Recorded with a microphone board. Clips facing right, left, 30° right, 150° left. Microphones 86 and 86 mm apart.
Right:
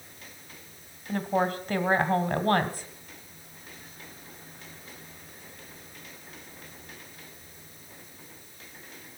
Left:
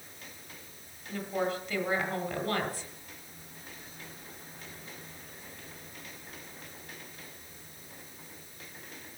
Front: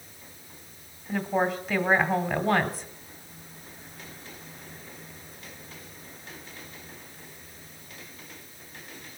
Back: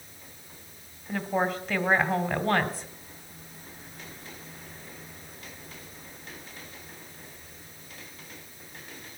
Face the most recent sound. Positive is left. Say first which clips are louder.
# right 5 dB, front 1 dB
turn(degrees=-120)